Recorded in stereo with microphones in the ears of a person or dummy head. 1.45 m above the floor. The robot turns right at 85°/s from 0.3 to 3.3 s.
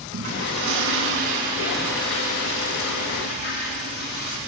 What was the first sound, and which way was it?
A toilet flushing, 125° right.